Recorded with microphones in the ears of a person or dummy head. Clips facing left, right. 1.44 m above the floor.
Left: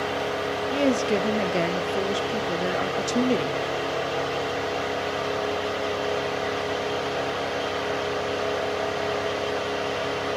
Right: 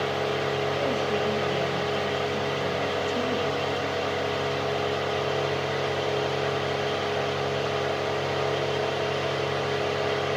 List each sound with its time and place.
0.7 s a woman speaking: 65° left (ahead or behind), 0.5 m